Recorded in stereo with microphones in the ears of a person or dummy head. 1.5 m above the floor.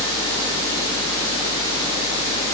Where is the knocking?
I don't hear knocking.